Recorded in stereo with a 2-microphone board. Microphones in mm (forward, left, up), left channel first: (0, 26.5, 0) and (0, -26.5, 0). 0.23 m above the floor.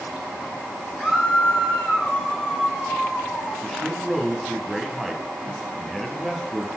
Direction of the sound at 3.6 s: Centre (ahead or behind).